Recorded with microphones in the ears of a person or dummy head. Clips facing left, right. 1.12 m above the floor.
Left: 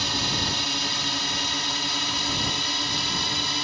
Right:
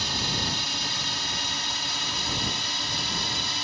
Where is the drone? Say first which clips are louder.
Left 2 dB; 55° left (ahead or behind); by 3.6 s 60° left (ahead or behind).